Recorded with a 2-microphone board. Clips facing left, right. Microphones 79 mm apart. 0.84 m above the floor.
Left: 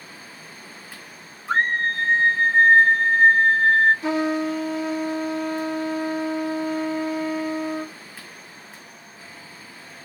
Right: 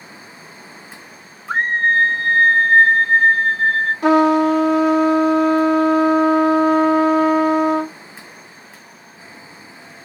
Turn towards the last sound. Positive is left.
turn(degrees=-70)  # may be behind; listen again after turning